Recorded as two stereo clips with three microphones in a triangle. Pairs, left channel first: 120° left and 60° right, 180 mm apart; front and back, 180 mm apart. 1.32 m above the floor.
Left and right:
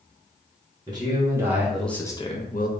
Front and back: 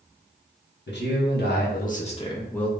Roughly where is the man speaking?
Ahead.